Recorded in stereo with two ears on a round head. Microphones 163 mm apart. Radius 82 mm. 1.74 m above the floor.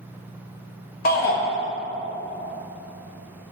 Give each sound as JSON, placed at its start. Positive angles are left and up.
{"t": 1.1, "sound": "a shout", "side_deg": 50, "distance_m": 0.8}